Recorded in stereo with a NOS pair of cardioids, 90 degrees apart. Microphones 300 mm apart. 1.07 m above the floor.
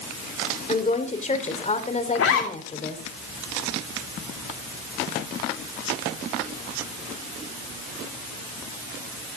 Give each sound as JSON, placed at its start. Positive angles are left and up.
{"t": 0.7, "sound": "a woman speaking", "azimuth_deg": 25, "distance_m": 3.0}
{"t": 2.1, "sound": "a zipper", "azimuth_deg": 50, "distance_m": 3.0}